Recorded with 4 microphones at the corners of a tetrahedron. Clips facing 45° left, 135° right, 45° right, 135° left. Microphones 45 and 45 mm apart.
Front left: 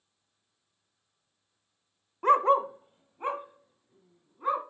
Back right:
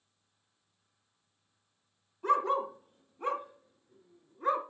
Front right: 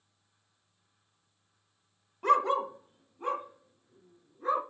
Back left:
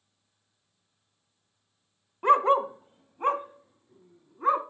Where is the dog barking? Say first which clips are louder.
Front left 6 dB, back left 5 dB; 70° left, 0.6 m; by 4.6 s 125° left, 1.7 m.